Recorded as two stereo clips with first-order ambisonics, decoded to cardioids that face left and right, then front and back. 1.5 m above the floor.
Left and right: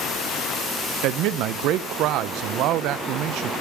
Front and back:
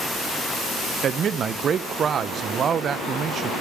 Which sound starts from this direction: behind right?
A man speaking, at 1.0 s.